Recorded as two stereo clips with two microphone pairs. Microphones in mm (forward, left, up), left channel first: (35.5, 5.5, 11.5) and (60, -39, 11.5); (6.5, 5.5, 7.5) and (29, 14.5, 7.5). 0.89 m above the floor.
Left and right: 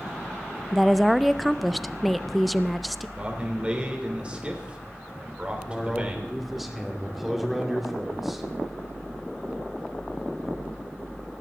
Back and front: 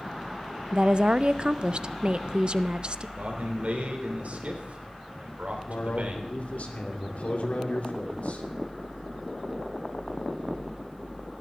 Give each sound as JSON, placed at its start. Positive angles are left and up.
{"t": 0.7, "sound": "a woman speaking", "azimuth_deg": 25, "distance_m": 0.5}
{"t": 3.2, "sound": "a man speaking", "azimuth_deg": 5, "distance_m": 3.5}
{"t": 5.7, "sound": "a man speaking", "azimuth_deg": -145, "distance_m": 2.5}